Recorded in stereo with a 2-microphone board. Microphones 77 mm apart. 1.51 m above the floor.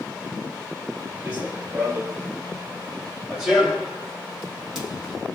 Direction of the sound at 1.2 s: 20° right (ahead or behind).